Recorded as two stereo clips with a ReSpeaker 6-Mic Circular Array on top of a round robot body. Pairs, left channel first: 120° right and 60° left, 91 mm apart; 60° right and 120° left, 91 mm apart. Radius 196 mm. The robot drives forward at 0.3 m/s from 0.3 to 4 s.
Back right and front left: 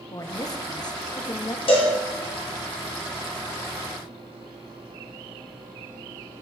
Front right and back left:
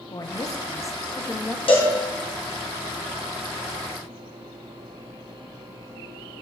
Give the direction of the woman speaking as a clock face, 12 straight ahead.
3 o'clock.